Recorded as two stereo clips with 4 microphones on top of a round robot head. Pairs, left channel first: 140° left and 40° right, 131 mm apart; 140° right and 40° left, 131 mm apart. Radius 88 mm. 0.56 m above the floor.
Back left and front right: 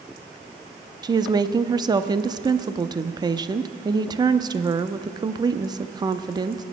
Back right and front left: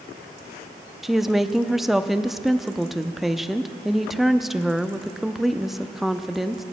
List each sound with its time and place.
1.0 s a woman speaking: 45° right, 0.6 m